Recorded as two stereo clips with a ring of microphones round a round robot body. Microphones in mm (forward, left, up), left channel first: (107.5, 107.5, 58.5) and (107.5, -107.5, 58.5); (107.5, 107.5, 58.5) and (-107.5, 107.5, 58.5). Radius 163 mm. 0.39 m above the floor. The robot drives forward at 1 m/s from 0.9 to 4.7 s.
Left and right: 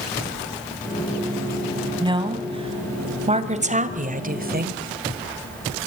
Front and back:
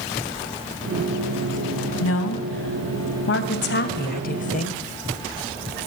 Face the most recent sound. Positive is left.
turn(degrees=-55)